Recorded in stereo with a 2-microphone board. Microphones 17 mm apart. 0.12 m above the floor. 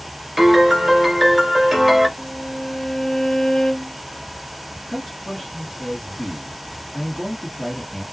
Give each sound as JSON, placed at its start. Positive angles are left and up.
{"t": 0.4, "sound": "a piano", "side_deg": -5, "distance_m": 1.3}
{"t": 2.2, "sound": "a violin", "side_deg": 45, "distance_m": 0.7}
{"t": 4.9, "sound": "a man speaking", "side_deg": 30, "distance_m": 2.5}